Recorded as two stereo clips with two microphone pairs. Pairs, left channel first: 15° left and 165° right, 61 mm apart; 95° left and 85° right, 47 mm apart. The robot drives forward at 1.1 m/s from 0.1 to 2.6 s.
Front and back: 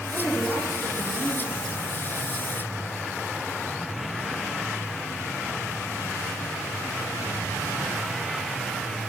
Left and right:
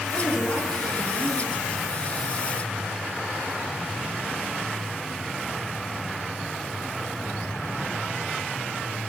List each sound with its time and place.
0.1 s a woman speaking: 95° left, 3 m; by 1.6 s 130° left, 3.5 m